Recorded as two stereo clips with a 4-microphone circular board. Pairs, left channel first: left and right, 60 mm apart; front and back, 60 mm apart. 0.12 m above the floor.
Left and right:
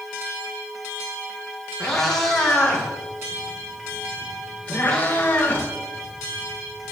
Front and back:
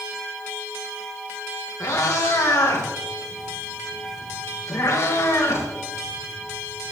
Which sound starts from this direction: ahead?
A cat meowing, at 1.8 s.